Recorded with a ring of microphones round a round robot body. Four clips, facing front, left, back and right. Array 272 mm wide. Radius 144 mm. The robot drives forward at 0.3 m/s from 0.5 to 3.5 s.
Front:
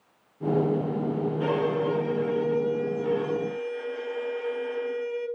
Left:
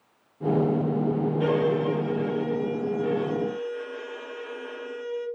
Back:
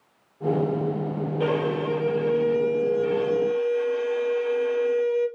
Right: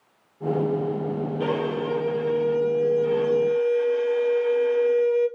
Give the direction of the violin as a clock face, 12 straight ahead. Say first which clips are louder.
Left 2 dB, back 2 dB; 6 o'clock.